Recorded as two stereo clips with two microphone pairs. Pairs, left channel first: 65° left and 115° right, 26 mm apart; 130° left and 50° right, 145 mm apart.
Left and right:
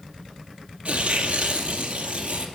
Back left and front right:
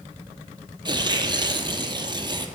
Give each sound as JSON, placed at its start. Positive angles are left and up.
{"t": 0.8, "sound": "tearing paper", "azimuth_deg": -105, "distance_m": 0.7}